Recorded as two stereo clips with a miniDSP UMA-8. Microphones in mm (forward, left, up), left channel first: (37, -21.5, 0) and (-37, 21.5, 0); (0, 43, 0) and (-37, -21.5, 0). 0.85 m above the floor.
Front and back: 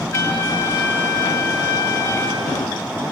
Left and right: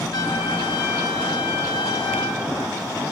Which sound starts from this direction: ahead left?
A trumpet, at 0.1 s.